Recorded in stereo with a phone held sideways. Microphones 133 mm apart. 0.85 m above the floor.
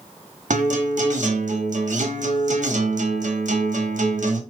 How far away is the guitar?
About 0.9 m.